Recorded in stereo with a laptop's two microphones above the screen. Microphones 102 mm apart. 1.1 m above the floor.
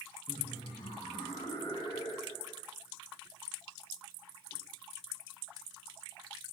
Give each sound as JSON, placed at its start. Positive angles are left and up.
{"t": 0.3, "sound": "laughter", "side_deg": 55, "distance_m": 1.6}